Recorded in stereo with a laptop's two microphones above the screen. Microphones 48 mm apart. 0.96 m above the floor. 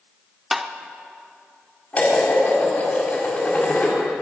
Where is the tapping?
5° right (ahead or behind), 0.6 m.